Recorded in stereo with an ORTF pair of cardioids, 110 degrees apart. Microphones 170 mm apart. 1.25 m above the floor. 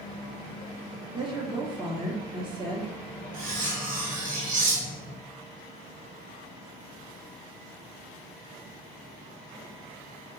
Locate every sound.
1.1 s a woman speaking: 30° right, 1.3 m
3.3 s cutlery clinking: 55° right, 1.2 m